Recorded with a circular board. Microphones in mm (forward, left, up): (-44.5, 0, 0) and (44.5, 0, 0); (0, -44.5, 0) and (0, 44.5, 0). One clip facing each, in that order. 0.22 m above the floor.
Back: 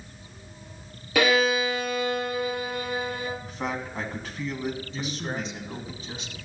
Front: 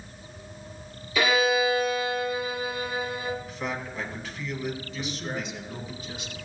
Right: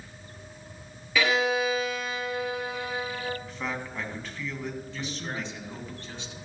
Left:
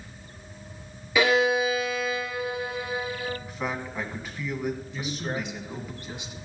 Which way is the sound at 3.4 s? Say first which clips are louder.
Back 1 dB, left 2 dB; 160° left.